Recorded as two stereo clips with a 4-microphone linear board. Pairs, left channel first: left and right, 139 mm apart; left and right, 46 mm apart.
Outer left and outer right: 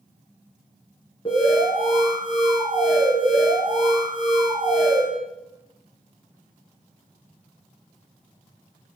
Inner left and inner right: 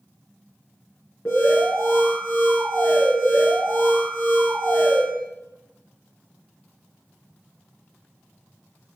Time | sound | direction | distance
1.2 | an alarm | 35° left (ahead or behind) | 5.5 m